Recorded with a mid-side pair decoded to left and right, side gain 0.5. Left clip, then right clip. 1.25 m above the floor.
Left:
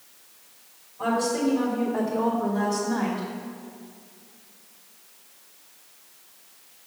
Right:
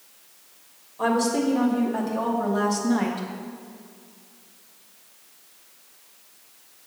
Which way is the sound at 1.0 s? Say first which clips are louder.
Right 2 dB; 60° right.